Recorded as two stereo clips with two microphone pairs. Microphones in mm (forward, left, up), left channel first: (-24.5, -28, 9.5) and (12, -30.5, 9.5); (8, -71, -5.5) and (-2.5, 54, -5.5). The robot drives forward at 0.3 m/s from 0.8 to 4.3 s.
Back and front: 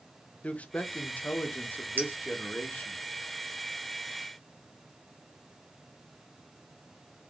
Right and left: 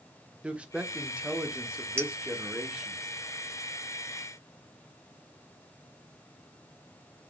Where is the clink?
20° left, 0.9 m; by 2.1 s 25° left, 0.9 m.